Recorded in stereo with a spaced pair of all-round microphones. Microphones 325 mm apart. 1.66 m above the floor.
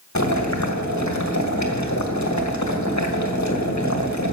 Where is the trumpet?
No trumpet in this recording.